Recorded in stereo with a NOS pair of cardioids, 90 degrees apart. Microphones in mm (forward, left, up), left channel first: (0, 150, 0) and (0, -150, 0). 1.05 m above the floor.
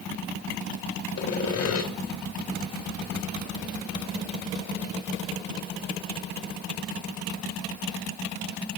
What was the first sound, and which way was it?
Sawing, 55° left.